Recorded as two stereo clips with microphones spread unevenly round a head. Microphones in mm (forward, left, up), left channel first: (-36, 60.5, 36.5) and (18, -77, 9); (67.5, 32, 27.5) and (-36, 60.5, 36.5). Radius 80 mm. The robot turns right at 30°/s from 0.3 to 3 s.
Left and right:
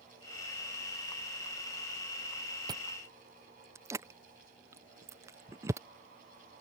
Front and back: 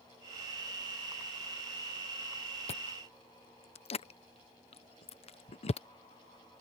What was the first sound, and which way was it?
Chewing, 10° right.